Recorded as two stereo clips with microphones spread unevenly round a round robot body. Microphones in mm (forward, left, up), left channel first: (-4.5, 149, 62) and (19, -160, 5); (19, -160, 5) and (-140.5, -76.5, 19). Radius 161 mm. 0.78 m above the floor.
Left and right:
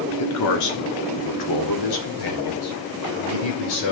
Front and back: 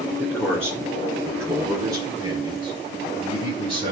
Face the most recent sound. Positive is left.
turn(degrees=85)